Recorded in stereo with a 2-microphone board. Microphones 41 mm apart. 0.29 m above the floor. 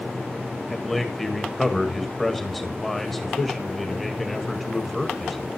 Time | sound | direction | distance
0.7 | a man speaking | 5° left (ahead or behind) | 1.5 m